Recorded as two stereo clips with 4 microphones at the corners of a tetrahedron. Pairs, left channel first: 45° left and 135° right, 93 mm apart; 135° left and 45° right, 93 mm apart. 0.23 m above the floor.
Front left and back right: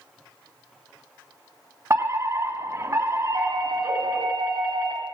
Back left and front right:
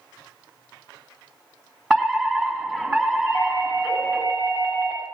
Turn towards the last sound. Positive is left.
turn(degrees=-175)